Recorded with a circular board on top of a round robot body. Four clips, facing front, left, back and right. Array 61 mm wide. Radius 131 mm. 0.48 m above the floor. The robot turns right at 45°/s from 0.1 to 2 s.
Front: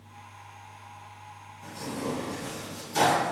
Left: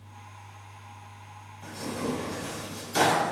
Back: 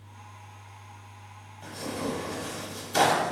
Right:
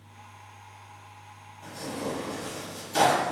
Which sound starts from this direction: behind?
Tearing paper, at 1.6 s.